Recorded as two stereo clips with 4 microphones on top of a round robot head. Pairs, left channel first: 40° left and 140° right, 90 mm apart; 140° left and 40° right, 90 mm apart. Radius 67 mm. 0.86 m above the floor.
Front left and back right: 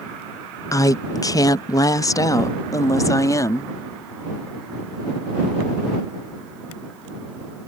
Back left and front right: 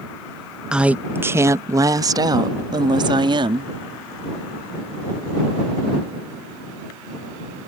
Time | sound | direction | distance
0.7 | a woman speaking | 35° left | ?